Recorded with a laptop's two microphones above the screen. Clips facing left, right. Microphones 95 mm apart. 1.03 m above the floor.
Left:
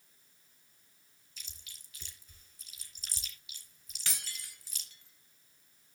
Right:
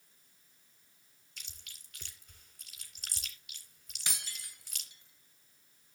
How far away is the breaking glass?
About 3 m.